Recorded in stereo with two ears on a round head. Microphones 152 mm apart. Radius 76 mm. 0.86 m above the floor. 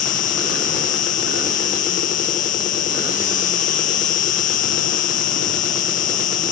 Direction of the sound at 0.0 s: 45° left (ahead or behind).